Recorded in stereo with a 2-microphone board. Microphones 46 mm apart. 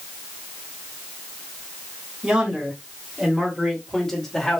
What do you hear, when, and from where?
2.2 s a man speaking: 15° right (ahead or behind), 2 m; by 4.6 s 15° left (ahead or behind), 1.5 m